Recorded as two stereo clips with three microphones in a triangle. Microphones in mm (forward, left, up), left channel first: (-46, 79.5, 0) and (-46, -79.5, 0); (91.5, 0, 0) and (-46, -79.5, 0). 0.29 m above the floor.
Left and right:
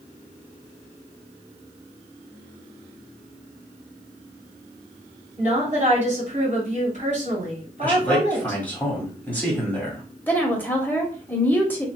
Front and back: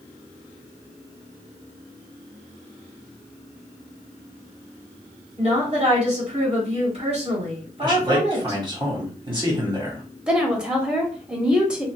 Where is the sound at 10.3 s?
140° left, 0.9 m.